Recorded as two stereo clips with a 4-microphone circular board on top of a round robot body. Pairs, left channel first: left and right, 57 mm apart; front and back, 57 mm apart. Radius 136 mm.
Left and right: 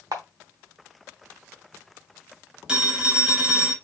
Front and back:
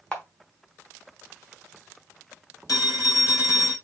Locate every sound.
0.1 s a camera shutter: 75° right, 1.0 m
2.7 s a phone ringing: 15° right, 3 m